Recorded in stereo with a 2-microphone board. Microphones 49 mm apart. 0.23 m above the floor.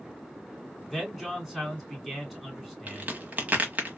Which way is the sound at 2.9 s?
35° right (ahead or behind).